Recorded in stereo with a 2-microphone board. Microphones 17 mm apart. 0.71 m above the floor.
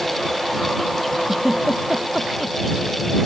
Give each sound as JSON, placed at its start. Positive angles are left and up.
{"t": 1.3, "sound": "a giggle", "side_deg": -15}